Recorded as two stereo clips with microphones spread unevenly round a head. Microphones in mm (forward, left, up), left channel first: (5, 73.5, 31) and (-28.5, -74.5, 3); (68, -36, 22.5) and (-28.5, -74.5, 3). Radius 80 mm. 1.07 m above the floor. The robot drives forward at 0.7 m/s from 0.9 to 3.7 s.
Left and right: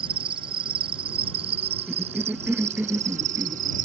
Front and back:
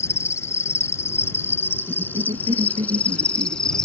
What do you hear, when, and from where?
0.0 s an insect: 40° right; by 3.9 s 60° right
1.9 s a cough: 175° left; by 3.9 s straight behind